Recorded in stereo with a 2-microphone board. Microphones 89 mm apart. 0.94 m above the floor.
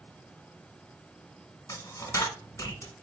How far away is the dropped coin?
About 1.0 m.